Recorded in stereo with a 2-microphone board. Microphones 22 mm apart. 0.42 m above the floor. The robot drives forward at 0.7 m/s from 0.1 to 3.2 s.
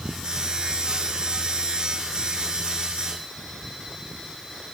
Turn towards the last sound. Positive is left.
No sound to turn to.